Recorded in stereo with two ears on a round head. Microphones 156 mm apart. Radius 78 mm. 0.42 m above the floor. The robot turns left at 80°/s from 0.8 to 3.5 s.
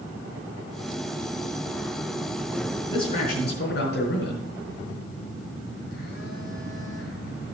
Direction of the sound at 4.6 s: 65° left (ahead or behind).